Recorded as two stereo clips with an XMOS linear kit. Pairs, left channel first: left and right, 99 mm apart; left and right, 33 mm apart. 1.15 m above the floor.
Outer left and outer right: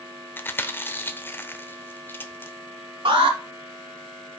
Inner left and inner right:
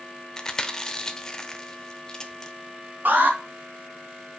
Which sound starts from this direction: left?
Chewing, at 0.4 s.